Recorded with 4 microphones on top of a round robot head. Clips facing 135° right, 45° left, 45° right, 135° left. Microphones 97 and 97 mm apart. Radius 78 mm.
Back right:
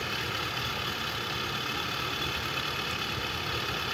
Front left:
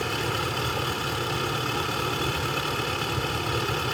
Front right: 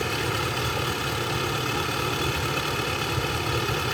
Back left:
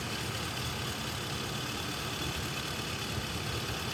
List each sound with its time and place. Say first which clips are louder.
0.0 s a vehicle: front left 7 dB, front right 11 dB; 10° right